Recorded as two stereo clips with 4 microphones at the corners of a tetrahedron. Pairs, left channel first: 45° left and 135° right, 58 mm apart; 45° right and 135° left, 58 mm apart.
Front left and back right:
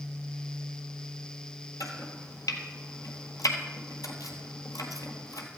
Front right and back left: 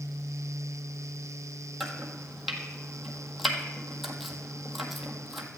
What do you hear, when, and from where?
1.8 s chopping: 45° left, 1.6 m